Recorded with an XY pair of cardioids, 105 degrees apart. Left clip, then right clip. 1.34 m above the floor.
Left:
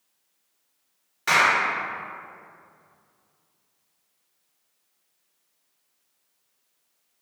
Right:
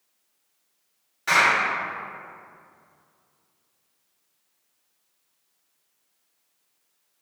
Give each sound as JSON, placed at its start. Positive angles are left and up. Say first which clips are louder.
{"t": 1.3, "sound": "a clap", "louder": "even", "azimuth_deg": 35, "distance_m": 1.4}